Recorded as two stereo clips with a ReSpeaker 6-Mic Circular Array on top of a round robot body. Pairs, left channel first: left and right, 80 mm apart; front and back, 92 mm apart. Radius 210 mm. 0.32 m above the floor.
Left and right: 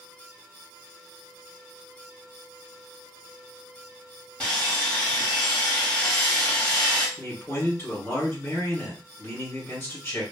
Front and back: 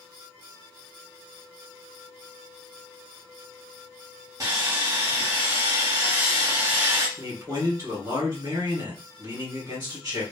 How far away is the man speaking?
About 2.0 m.